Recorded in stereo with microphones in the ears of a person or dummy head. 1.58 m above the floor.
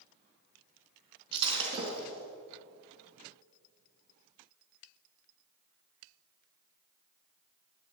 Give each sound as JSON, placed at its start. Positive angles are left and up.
{"t": 1.3, "sound": "breaking glass", "side_deg": -30, "distance_m": 4.5}